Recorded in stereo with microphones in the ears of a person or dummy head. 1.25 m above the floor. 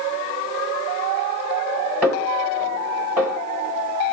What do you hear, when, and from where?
2.0 s a snare drum: 10° right (ahead or behind), 2 m